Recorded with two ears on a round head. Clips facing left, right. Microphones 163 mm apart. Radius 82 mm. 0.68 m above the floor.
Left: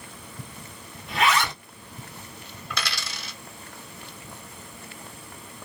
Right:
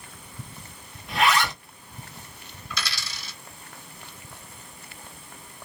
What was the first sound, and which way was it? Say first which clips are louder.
A zipper: right 1 dB; centre (ahead or behind).